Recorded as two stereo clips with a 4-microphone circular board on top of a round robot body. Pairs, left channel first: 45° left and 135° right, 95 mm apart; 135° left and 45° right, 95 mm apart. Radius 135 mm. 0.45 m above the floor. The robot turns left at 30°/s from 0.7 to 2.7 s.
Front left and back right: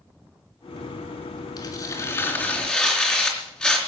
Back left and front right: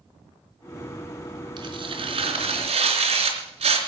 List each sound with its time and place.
1.6 s tearing paper: straight ahead, 3.5 m; by 3.8 s 35° right, 3.5 m